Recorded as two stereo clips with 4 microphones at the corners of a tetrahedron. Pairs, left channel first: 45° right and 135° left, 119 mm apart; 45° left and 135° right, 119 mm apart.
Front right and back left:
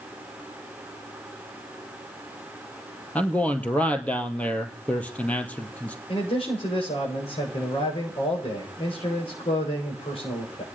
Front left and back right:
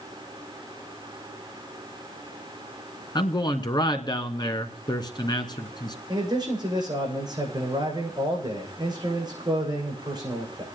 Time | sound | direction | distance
3.1 | a man speaking | 25° left | 1.9 m
6.1 | a man speaking | 80° right | 8.5 m